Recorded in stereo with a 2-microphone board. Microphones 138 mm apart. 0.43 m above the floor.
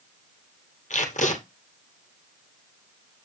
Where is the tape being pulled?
65° left (ahead or behind), 2 m.